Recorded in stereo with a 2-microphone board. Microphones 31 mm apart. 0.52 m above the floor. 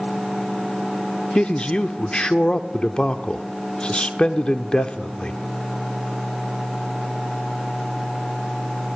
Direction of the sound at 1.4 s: 30° left (ahead or behind).